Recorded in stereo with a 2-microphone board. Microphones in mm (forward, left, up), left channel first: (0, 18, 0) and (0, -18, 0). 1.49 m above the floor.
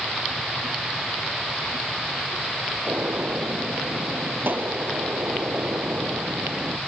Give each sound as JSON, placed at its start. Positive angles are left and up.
{"t": 2.9, "sound": "a gunshot", "side_deg": -60}